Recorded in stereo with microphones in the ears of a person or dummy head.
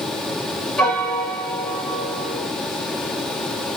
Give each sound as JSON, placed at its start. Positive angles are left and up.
{"t": 0.8, "sound": "a piano", "side_deg": 5, "distance_m": 1.4}